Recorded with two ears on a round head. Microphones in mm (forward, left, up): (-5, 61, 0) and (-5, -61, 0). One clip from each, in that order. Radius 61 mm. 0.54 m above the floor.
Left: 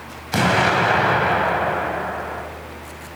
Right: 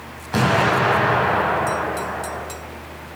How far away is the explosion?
About 4 m.